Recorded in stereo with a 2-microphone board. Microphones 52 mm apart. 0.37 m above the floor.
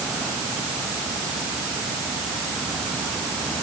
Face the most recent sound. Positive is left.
No sound to turn to.